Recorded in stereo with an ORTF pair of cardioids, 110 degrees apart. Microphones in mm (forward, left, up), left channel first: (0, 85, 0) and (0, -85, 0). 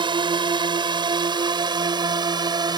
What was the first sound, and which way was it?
A drone, 30° right.